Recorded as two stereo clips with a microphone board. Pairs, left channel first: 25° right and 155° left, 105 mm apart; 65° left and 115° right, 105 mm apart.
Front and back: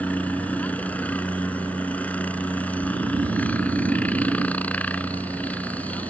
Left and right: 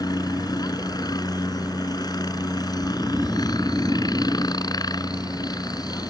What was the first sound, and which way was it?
A helicopter, 45° left.